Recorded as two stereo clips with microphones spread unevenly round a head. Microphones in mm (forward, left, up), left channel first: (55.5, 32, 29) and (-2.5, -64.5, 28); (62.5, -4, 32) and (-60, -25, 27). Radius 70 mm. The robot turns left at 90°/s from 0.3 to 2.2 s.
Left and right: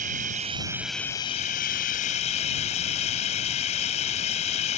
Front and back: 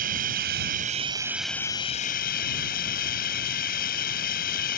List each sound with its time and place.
0.0 s running water: 155° right; by 4.8 s 35° left